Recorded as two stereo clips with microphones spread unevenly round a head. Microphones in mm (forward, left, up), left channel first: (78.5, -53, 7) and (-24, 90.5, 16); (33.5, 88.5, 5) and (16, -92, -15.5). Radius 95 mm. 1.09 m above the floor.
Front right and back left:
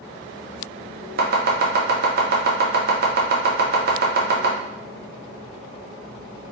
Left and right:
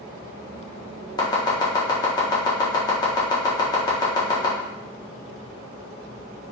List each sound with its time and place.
1.2 s chopping: 155° left, 0.6 m